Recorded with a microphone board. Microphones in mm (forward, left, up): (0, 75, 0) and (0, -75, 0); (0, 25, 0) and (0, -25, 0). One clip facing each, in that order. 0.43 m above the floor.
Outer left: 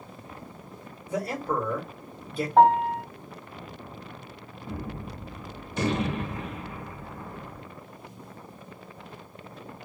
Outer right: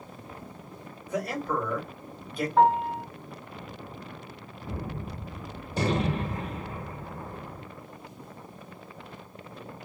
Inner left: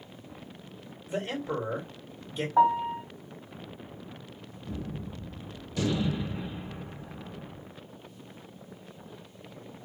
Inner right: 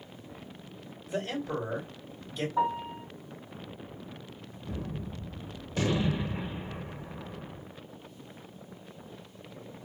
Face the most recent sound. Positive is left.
turn(degrees=-35)  # may be behind; listen again after turning